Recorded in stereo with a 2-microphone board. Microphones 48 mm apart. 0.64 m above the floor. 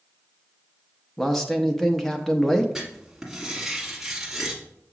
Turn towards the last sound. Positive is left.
turn(degrees=-5)  # may be behind; listen again after turning